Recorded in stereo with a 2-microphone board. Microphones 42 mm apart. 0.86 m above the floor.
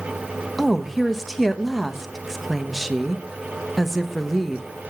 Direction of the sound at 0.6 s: Centre (ahead or behind).